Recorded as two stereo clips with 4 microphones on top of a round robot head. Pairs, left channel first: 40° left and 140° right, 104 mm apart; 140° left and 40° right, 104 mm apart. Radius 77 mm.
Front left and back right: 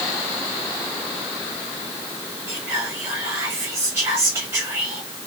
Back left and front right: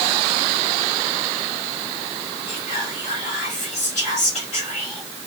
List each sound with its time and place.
2.5 s whispering: 160° left, 2 m